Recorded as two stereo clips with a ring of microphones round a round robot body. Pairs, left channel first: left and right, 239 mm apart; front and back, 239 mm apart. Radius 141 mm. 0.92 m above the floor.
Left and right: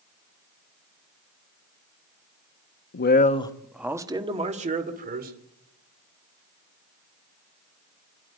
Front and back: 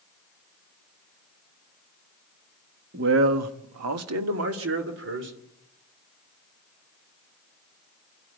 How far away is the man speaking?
About 1.3 m.